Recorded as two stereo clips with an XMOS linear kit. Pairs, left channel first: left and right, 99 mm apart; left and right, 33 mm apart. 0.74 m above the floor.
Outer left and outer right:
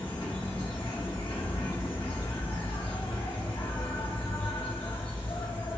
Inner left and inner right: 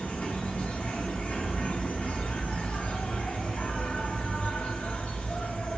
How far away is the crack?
No crack in this recording.